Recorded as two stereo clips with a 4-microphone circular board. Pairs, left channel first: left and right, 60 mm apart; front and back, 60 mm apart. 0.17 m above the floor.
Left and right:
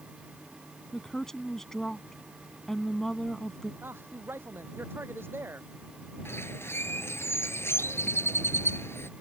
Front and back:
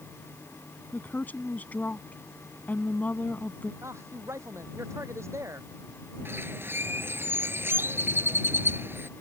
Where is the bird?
135° left.